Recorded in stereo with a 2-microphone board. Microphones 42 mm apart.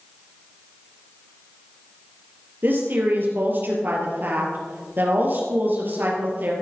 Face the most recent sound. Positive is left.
turn(degrees=-50)  # may be behind; listen again after turning